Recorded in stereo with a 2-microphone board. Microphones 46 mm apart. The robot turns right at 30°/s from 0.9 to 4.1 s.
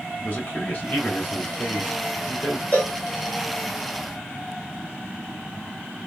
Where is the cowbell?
30° left (ahead or behind), 2.5 m; by 3.0 s 25° left (ahead or behind), 2.5 m.